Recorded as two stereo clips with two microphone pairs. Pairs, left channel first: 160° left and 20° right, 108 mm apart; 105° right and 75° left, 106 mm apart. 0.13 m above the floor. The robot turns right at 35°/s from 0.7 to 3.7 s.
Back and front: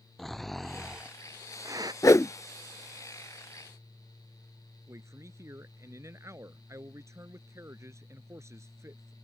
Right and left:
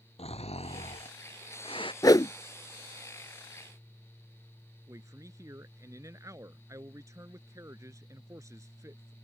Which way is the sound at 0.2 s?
110° right.